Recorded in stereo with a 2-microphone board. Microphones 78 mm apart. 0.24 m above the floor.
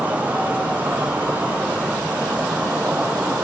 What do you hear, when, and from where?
0.0 s an insect: 20° right (ahead or behind), 1.1 m